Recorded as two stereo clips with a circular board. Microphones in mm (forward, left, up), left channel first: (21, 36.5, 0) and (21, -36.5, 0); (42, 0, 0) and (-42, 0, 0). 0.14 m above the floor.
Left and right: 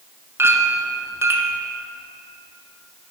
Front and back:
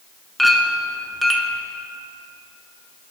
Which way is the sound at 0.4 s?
90° right.